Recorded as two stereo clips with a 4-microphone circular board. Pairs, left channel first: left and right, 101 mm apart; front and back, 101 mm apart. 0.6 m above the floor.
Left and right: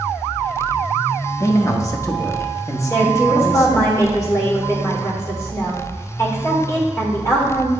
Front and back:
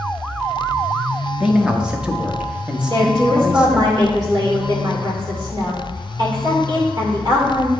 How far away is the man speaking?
About 0.8 m.